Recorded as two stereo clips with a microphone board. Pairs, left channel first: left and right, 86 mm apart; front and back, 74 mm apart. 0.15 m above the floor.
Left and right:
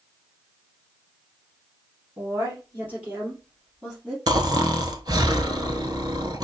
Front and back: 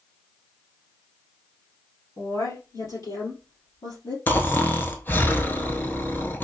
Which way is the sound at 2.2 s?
30° right.